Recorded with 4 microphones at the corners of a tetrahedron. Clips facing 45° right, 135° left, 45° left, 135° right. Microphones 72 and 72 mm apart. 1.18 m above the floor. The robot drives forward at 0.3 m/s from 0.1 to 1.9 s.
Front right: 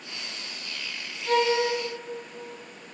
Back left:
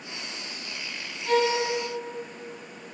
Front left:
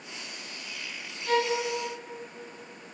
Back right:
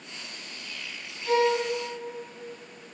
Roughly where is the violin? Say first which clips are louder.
Even, back right 3 dB; behind.